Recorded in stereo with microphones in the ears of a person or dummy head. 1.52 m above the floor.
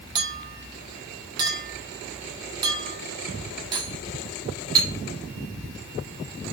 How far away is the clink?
About 1.6 m.